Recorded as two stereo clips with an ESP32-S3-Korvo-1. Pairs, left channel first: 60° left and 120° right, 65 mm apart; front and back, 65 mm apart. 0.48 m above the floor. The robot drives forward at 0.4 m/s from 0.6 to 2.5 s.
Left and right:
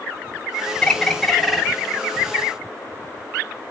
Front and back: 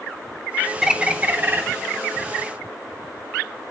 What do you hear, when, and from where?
0.8 s a bird: 105° left, 0.5 m; by 1.6 s 155° left, 0.6 m